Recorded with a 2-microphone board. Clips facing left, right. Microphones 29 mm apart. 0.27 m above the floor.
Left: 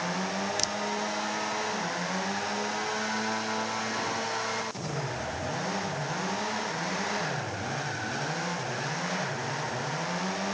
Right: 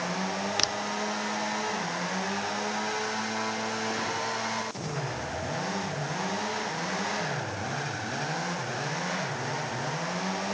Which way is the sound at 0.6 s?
35° right (ahead or behind).